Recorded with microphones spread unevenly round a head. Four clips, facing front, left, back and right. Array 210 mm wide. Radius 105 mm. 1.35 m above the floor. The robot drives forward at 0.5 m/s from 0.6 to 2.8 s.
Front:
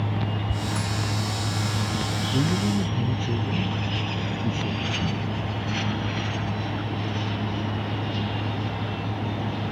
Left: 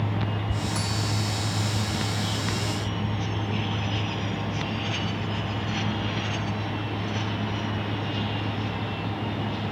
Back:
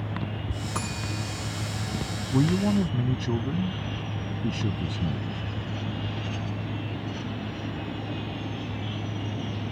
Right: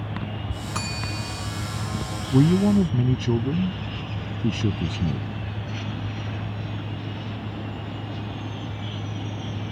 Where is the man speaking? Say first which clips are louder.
Right 11 dB, back 2 dB; 95° right.